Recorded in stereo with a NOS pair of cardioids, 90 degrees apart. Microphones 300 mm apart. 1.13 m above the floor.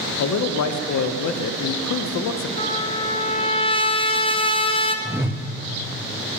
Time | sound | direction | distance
0.2 | a man speaking | 65° left | 0.6 m
2.6 | a trumpet | 15° left | 0.7 m
5.0 | a whoosh | 10° right | 0.5 m